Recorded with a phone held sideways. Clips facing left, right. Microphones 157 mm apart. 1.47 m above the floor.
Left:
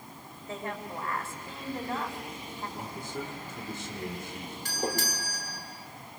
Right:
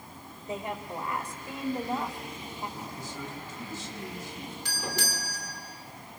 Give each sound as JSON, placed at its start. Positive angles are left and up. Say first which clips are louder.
{"t": 0.5, "sound": "a woman speaking", "louder": "right 2 dB", "side_deg": -20, "distance_m": 4.5}
{"t": 2.8, "sound": "a man speaking", "louder": "left 2 dB", "side_deg": 60, "distance_m": 5.0}
{"t": 4.7, "sound": "a doorbell", "louder": "left 5 dB", "side_deg": 50, "distance_m": 6.5}